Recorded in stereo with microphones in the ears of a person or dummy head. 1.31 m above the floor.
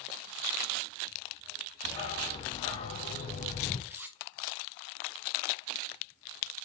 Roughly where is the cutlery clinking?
Centre.